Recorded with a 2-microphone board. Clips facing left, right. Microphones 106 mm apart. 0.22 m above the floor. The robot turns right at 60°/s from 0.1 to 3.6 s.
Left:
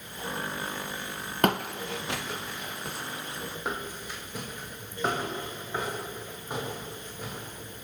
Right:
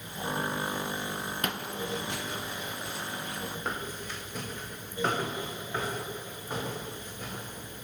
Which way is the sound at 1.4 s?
55° left (ahead or behind).